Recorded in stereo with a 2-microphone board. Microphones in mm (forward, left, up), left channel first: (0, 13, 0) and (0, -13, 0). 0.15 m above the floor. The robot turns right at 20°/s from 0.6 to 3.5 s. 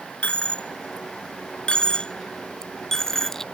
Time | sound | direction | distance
0.2 | a dropped coin | 50° left (ahead or behind) | ?